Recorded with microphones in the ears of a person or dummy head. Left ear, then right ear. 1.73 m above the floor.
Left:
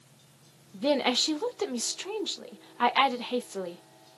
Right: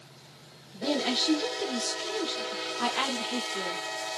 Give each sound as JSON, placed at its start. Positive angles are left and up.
{"t": 0.7, "sound": "a woman speaking", "side_deg": 30, "distance_m": 0.6}